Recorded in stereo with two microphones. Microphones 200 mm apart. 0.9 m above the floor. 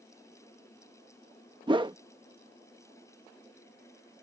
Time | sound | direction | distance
1.7 | a whoosh | 25° right (ahead or behind) | ?